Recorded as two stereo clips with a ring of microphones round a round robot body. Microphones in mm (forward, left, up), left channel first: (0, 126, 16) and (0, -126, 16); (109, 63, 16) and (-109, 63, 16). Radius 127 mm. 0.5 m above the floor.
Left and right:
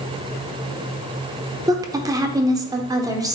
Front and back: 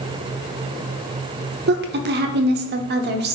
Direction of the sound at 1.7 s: 160° right.